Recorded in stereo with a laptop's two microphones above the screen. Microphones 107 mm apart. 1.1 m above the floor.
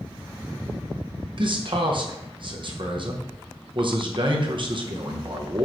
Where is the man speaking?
50° right (ahead or behind), 1.1 m.